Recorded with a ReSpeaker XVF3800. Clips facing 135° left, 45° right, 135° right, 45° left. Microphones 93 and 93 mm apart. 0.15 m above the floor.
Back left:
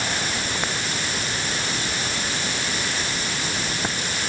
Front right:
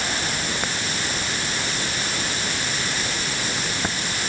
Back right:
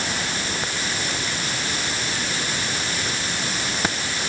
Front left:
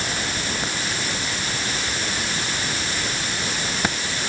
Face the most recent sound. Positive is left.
No sound to turn to.